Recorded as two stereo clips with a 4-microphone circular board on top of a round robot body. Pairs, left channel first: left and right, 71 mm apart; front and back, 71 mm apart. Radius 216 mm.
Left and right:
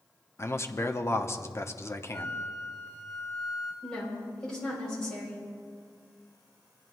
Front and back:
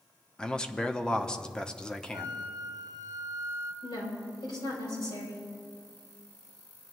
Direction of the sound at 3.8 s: 10° left.